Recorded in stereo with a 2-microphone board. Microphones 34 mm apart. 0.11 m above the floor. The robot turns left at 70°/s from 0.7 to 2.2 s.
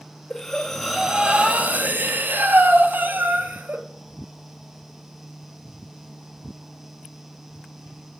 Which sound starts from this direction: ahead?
Breathing, at 0.3 s.